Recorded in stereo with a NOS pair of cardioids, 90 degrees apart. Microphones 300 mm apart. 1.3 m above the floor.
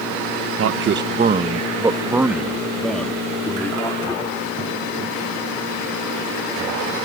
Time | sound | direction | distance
0.6 | a man speaking | 50° right | ?